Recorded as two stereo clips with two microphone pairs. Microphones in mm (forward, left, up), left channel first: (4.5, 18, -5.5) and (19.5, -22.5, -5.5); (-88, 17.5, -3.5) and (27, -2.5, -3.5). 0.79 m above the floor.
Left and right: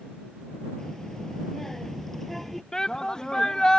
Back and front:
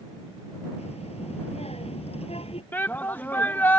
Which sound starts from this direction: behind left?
A shout, at 2.7 s.